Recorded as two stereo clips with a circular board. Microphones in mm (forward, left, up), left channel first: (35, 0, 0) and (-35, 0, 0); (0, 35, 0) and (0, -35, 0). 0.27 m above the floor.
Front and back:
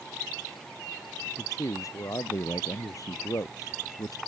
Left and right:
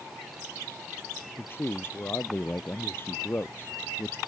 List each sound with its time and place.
1.4 s a man speaking: 35° left